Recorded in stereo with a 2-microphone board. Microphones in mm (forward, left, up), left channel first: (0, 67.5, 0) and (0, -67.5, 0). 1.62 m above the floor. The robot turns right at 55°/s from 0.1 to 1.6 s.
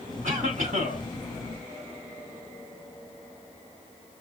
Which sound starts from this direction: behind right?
A cough, at 0.2 s.